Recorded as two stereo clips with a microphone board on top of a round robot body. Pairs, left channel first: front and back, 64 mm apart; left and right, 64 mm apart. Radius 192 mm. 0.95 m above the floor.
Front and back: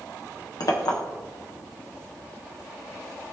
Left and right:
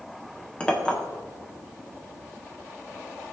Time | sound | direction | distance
0.6 | a clink | 15° left | 1.6 m